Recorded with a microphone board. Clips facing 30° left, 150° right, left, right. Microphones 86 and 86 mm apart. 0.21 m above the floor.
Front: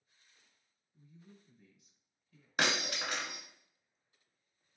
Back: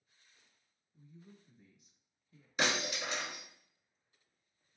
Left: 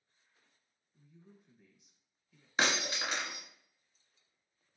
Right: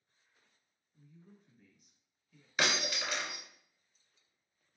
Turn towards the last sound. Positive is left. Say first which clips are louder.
# even, left 1 dB
turn(degrees=30)